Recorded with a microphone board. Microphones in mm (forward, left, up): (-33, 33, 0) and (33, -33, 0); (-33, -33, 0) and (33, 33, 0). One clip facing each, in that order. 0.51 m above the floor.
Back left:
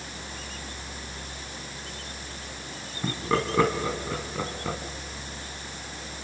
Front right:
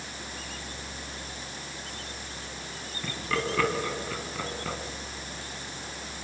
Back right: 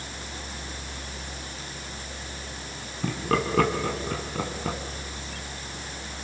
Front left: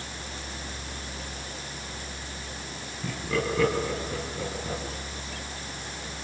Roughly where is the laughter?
Behind.